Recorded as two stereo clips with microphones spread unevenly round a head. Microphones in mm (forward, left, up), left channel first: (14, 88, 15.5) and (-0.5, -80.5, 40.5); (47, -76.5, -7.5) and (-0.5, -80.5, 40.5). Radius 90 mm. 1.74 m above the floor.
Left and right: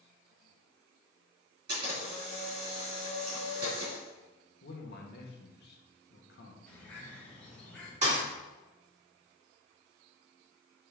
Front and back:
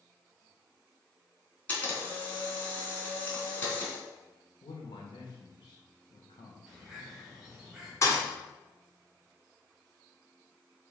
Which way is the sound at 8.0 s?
65° right.